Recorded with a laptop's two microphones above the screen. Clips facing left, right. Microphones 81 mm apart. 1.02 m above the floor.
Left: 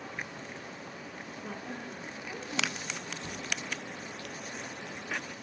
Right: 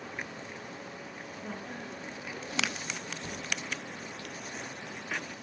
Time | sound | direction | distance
1.4 | a woman speaking | centre (ahead or behind) | 1.1 m
3.2 | a cupboard door | 15° right (ahead or behind) | 0.7 m